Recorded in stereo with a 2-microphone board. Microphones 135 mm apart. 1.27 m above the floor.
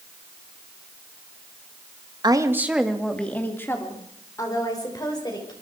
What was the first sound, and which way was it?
A woman speaking, 35° right (ahead or behind).